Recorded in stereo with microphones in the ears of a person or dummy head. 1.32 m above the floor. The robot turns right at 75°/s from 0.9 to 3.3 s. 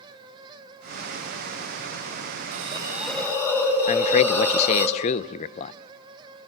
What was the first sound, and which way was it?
A hiss, 45° right.